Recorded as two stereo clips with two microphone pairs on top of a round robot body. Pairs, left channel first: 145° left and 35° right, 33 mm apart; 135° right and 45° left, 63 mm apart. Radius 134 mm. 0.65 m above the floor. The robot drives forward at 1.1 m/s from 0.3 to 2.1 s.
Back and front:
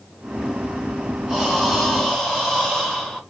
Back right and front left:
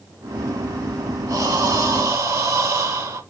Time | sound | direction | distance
1.3 | breathing | 45° left | 3.5 m